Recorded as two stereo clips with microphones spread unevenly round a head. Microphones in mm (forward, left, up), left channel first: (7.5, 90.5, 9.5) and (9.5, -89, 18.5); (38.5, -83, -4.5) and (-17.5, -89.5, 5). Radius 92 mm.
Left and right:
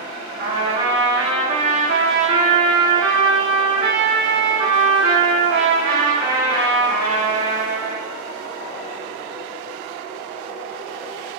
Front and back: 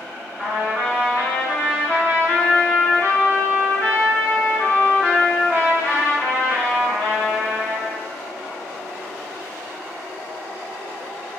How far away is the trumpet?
About 1.3 m.